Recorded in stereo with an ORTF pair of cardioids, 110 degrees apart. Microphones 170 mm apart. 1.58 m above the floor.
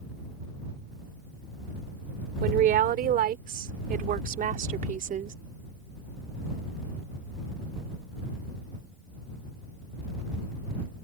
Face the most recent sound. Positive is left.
turn(degrees=-50)